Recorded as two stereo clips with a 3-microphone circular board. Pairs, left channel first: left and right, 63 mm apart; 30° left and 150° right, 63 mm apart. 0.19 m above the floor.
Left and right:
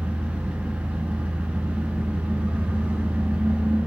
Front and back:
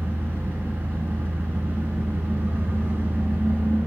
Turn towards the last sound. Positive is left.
turn(degrees=-130)